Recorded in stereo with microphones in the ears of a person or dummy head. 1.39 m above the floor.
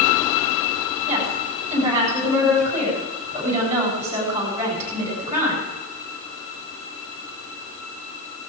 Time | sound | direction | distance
1.1 | a woman speaking | 15° right (ahead or behind) | 8.5 m